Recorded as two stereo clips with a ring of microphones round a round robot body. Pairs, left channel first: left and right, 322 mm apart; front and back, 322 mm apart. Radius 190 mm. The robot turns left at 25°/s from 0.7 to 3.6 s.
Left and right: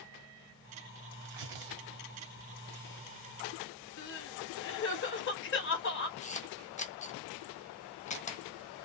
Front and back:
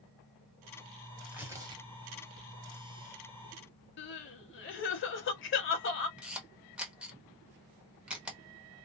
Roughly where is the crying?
Ahead left.